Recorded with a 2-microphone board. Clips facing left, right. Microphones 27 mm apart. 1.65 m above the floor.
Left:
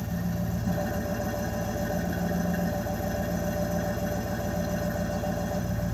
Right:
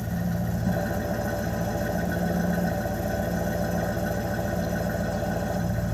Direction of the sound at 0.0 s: 75° right (ahead or behind).